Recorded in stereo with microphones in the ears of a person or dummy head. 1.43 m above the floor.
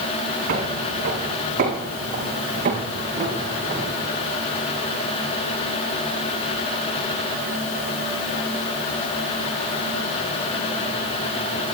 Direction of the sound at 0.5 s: 60° right (ahead or behind).